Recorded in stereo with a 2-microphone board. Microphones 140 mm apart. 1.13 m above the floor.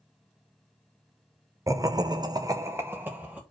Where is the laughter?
20° right (ahead or behind), 0.7 m; by 3.4 s 10° right (ahead or behind), 1.3 m.